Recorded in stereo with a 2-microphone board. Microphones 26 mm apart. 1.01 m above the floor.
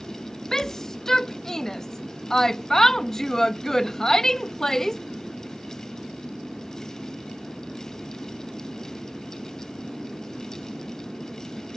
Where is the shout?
20° left (ahead or behind).